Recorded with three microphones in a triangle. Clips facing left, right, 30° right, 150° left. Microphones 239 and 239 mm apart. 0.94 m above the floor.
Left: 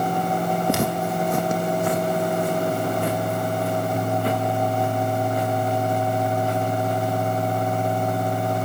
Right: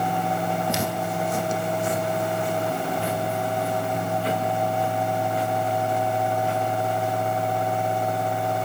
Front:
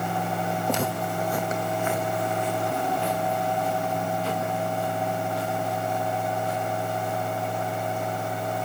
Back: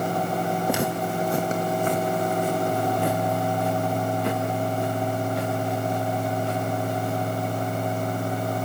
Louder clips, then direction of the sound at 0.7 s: Left 4 dB, back 2 dB; 70° left.